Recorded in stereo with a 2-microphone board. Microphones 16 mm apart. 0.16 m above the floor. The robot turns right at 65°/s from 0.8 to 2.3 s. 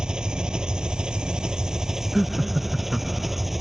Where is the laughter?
5° right (ahead or behind); by 3.5 s 10° right (ahead or behind).